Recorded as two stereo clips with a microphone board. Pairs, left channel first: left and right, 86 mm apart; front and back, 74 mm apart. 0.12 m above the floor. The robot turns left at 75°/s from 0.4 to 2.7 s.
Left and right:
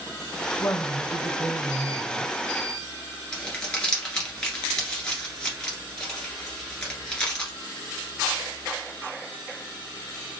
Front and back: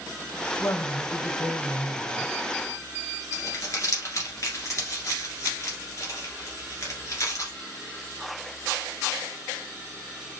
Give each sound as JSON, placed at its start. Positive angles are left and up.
{"t": 0.6, "sound": "a woman speaking", "azimuth_deg": 60, "distance_m": 3.0}
{"t": 3.3, "sound": "crumpling", "azimuth_deg": 15, "distance_m": 2.0}